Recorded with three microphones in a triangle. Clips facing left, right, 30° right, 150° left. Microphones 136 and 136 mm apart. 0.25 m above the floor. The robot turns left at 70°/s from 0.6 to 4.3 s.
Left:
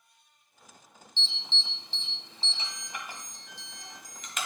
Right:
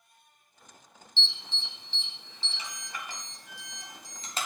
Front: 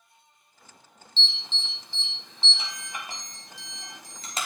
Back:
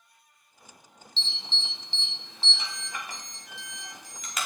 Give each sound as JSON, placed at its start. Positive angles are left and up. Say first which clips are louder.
{"t": 1.2, "sound": "an alarm", "louder": "even, front 2 dB", "azimuth_deg": 155, "distance_m": 1.5}